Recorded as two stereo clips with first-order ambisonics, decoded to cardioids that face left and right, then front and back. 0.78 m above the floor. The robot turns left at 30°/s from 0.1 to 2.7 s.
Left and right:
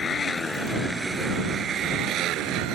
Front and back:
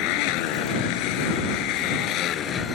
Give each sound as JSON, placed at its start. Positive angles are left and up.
{"t": 0.0, "sound": "a motorcycle", "azimuth_deg": 20}